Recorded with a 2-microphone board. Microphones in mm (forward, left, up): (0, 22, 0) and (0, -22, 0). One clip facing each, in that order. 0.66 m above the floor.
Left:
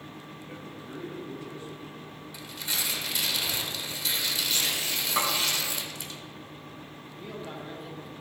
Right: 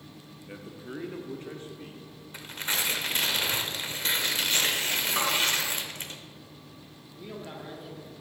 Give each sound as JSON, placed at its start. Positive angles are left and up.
{"t": 0.5, "sound": "a man speaking", "side_deg": -5, "distance_m": 0.6}
{"t": 2.3, "sound": "tearing paper", "side_deg": -45, "distance_m": 0.7}
{"t": 5.2, "sound": "a snare drum", "side_deg": 15, "distance_m": 2.0}
{"t": 7.1, "sound": "a man speaking", "side_deg": 5, "distance_m": 1.4}